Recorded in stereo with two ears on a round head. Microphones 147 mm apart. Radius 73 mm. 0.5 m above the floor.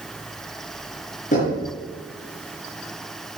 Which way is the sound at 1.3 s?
50° left (ahead or behind).